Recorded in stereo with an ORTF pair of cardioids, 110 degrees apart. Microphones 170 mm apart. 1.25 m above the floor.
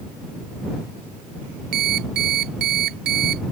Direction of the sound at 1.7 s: 65° right.